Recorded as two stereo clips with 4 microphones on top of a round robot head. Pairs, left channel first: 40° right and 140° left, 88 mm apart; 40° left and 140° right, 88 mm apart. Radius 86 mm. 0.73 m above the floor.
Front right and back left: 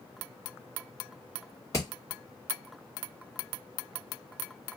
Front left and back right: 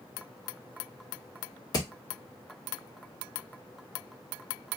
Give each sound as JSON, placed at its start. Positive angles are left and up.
{"t": 1.7, "sound": "hammering", "azimuth_deg": 0, "distance_m": 1.4}